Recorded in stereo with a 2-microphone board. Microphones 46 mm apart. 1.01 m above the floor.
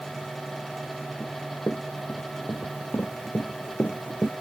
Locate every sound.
1.2 s running footsteps: 50° left (ahead or behind); by 4.3 s 45° left (ahead or behind)